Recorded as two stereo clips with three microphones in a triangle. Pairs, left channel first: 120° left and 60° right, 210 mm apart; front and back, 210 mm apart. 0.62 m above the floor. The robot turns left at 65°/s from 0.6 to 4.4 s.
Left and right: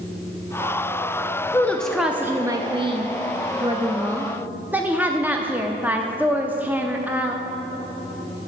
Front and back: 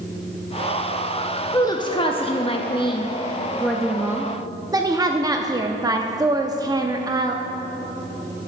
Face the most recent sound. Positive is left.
turn(degrees=-130)